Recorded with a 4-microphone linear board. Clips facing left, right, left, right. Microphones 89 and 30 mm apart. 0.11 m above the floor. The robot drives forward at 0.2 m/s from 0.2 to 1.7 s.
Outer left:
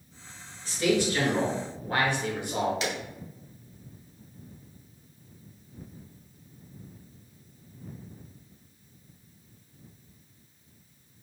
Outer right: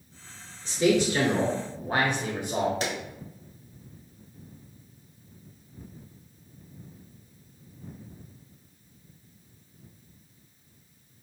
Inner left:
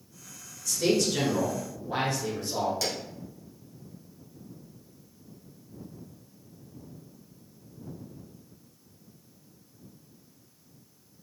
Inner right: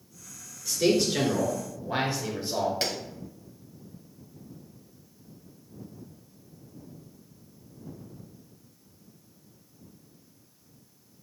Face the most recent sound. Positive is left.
turn(degrees=-40)  # may be behind; listen again after turning